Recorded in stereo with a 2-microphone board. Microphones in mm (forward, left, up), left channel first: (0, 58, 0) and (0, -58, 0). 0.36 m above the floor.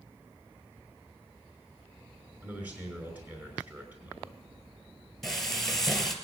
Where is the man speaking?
15° right (ahead or behind), 5.5 m.